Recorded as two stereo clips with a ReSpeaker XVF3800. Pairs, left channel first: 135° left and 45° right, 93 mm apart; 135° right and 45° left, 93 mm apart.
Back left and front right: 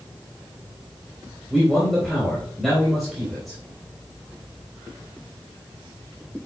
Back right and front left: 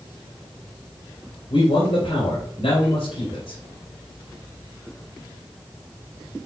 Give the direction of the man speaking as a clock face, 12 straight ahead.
5 o'clock.